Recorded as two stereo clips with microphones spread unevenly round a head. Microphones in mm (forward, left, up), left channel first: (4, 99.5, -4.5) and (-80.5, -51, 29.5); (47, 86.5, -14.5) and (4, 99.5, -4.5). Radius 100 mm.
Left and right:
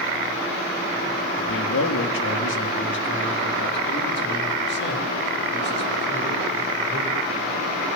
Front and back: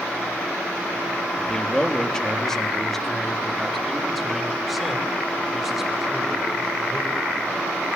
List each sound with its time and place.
1.4 s a man speaking: 50° left, 2.5 m; by 7.2 s 85° left, 6.5 m